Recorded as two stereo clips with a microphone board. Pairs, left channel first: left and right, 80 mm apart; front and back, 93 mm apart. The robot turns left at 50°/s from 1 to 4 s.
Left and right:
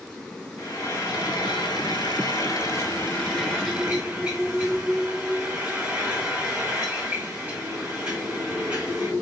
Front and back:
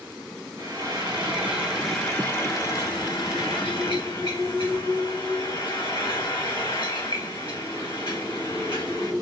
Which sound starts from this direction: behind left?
Frying, at 0.6 s.